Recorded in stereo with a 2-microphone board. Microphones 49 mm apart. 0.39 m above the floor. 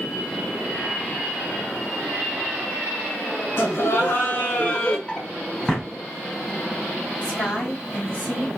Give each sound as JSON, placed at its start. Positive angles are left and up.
{"t": 3.6, "sound": "laughter", "side_deg": 60, "distance_m": 1.5}
{"t": 5.1, "sound": "a drawer", "side_deg": 15, "distance_m": 1.0}
{"t": 7.2, "sound": "a woman speaking", "side_deg": 35, "distance_m": 1.8}